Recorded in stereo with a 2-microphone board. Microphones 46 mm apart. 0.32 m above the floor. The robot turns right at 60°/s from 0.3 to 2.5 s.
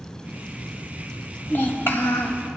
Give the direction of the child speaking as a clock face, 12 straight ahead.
10 o'clock.